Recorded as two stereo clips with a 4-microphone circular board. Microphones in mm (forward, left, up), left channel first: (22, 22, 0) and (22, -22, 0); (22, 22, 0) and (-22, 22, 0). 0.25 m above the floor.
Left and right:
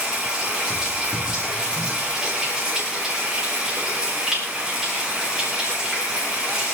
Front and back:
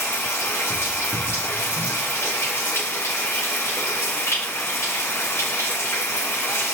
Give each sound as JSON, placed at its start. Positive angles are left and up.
{"t": 0.0, "sound": "running water", "azimuth_deg": -15, "distance_m": 6.5}